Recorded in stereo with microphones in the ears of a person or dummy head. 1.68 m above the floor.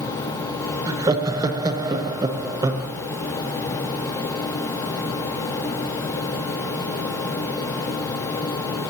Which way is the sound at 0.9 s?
20° right (ahead or behind).